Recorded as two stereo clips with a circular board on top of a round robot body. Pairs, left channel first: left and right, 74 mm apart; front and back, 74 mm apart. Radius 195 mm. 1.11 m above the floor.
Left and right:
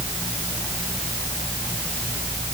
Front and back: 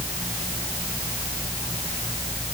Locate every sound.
Only background noise.